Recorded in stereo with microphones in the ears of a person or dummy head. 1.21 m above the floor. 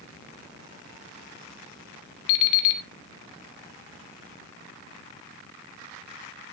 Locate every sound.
2.3 s an alarm clock: 70° left (ahead or behind), 1.8 m